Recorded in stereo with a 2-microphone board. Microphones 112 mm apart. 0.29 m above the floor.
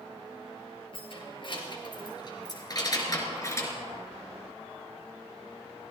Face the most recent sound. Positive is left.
turn(degrees=25)  # may be behind; listen again after turning